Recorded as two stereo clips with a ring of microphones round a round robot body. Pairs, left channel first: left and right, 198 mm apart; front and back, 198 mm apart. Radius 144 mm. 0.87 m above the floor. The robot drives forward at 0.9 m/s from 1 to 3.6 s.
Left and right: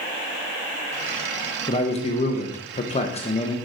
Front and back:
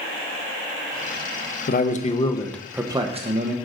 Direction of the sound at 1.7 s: 30° left.